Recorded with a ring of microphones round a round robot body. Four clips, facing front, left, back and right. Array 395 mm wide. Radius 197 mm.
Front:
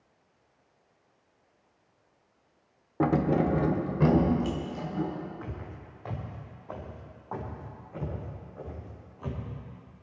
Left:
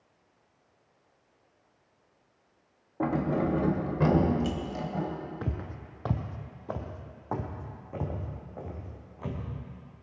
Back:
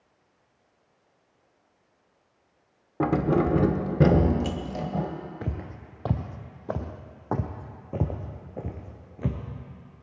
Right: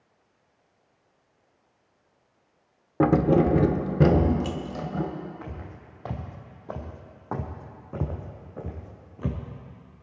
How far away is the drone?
I don't hear a drone.